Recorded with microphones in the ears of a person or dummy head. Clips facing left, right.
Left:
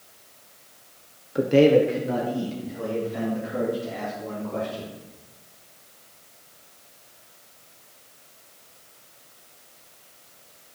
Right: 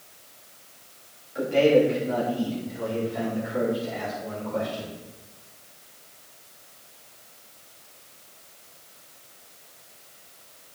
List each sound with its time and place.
1.4 s a man speaking: 50° left (ahead or behind), 0.9 m; by 4.9 s 70° left (ahead or behind), 5.5 m